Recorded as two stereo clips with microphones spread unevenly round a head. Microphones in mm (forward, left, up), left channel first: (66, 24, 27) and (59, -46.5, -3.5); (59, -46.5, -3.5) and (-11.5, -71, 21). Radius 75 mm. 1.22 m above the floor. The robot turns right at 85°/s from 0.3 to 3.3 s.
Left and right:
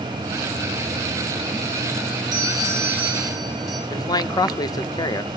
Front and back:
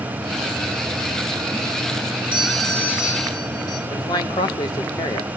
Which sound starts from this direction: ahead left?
A man speaking, at 3.9 s.